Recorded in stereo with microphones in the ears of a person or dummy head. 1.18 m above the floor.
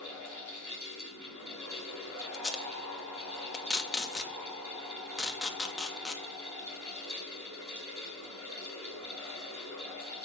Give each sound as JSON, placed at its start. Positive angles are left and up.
{"t": 0.0, "sound": "a fan", "side_deg": -70, "distance_m": 3.0}
{"t": 2.3, "sound": "tape being pulled", "side_deg": 5, "distance_m": 0.7}